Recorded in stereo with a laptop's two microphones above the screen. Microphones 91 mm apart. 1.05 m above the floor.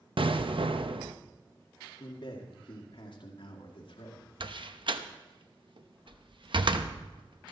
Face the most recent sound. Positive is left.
turn(degrees=-65)  # may be behind; listen again after turning